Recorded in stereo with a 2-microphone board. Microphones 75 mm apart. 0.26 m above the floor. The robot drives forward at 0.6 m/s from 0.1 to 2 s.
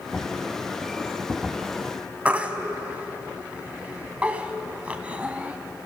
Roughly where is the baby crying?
Centre.